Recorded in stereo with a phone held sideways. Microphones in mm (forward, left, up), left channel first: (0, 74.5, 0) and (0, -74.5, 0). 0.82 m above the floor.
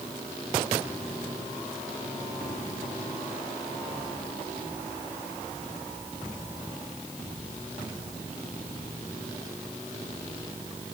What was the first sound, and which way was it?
Only background noise.